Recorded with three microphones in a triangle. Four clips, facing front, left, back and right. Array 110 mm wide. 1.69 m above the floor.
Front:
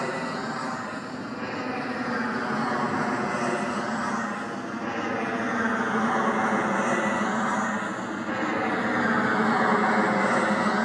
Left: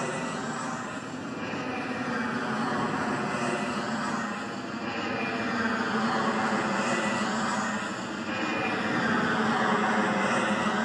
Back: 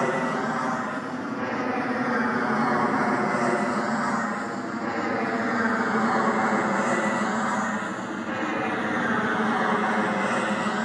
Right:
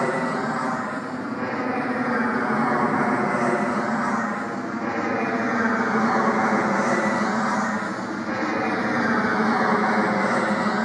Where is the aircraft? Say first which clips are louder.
Right 8 dB, back 5 dB; 125° right; by 10.8 s 55° right.